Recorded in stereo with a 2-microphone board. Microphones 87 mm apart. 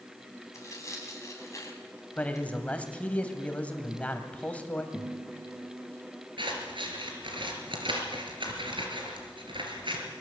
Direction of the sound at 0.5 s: 35° left (ahead or behind).